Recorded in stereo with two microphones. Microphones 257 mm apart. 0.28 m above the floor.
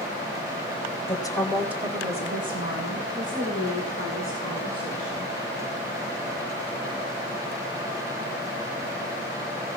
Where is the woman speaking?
20° left (ahead or behind), 1.2 m; by 5.3 s 65° right (ahead or behind), 3.5 m.